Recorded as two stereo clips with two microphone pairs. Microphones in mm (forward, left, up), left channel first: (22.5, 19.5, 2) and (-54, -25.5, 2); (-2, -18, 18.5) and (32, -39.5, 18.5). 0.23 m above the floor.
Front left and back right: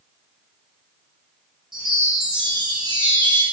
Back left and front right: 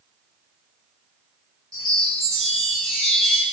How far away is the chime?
About 1.3 m.